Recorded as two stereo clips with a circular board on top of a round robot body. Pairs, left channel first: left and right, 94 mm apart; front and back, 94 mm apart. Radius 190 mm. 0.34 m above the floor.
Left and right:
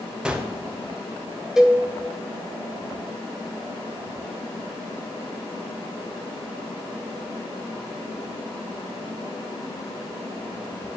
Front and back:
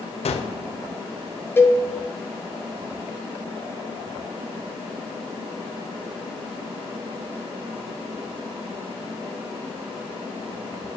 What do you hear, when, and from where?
0.2 s a gunshot: 10° right, 0.6 m
1.6 s a cowbell: 10° right, 1.0 m